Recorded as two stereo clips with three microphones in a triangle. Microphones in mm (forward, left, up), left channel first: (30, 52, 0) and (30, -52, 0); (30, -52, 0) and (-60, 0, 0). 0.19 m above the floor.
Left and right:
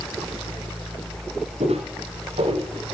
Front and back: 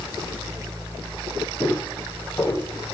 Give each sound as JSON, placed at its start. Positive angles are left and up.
{"t": 1.6, "sound": "footsteps", "azimuth_deg": -100, "distance_m": 8.5}